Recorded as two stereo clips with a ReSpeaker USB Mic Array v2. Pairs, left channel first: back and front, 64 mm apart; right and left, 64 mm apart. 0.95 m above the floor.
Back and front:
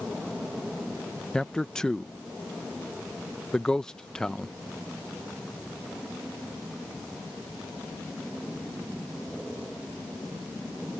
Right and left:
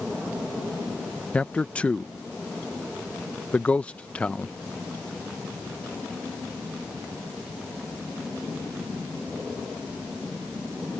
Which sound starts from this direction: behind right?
A man speaking, at 1.3 s.